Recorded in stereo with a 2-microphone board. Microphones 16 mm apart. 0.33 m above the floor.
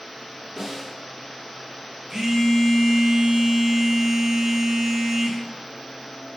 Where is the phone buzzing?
55° right (ahead or behind), 1.0 m.